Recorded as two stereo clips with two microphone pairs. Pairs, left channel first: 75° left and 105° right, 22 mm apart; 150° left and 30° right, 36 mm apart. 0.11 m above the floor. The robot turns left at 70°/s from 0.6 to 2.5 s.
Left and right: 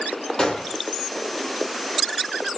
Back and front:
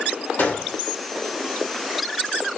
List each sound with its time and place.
0.4 s a gunshot: 135° left, 3 m; by 0.8 s 120° left, 3 m